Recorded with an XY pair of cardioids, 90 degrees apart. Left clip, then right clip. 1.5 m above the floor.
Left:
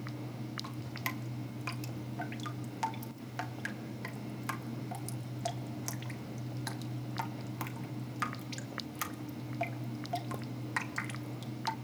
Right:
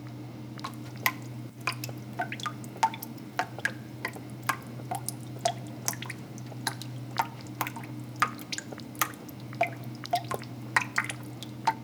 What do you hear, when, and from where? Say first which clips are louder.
0.6 s dripping: right 11 dB; 70° right, 1.0 m